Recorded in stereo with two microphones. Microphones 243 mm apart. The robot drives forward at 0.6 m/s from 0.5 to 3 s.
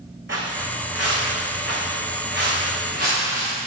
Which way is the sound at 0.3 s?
50° right (ahead or behind).